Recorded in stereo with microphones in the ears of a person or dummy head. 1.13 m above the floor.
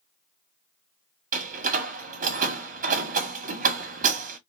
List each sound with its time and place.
1.3 s a door slam: 45° right (ahead or behind), 1.2 m